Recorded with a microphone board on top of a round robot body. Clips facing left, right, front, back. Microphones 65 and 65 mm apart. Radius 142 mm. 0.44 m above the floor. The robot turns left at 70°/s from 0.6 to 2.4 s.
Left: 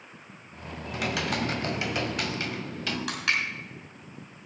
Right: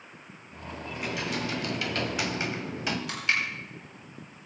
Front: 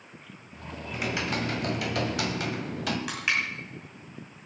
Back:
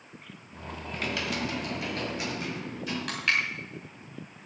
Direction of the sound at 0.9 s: 85° left.